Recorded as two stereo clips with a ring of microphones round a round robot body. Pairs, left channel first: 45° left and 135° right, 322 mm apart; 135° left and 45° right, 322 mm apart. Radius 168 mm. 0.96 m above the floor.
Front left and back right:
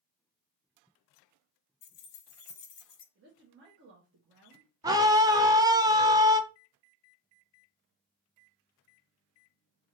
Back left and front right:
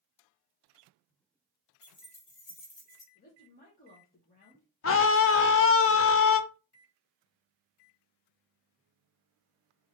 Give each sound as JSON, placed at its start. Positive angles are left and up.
{"t": 1.8, "sound": "keys jangling", "azimuth_deg": 55, "distance_m": 0.7}
{"t": 3.1, "sound": "a woman speaking", "azimuth_deg": -175, "distance_m": 1.1}
{"t": 4.8, "sound": "a scream", "azimuth_deg": 150, "distance_m": 0.7}